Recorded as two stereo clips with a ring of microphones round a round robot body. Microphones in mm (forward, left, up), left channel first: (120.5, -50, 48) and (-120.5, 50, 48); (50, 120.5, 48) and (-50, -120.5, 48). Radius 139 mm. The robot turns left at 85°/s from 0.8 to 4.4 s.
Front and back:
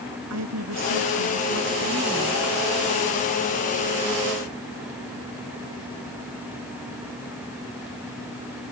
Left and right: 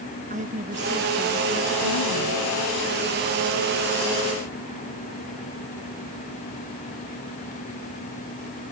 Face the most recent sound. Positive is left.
turn(degrees=-120)